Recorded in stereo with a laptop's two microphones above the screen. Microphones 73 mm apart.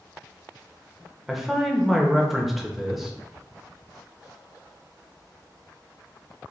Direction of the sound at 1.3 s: Centre (ahead or behind).